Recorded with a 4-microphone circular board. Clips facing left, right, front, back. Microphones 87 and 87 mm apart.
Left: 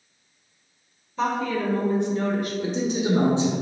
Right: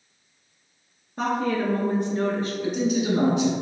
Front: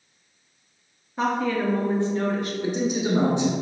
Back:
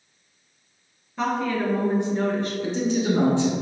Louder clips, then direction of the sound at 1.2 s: Even, front 1 dB; 70° right.